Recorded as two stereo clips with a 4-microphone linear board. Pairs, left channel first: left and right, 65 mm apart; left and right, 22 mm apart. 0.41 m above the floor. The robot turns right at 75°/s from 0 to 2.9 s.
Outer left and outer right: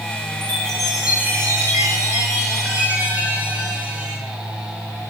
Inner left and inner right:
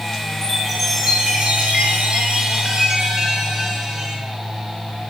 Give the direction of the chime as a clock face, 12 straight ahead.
7 o'clock.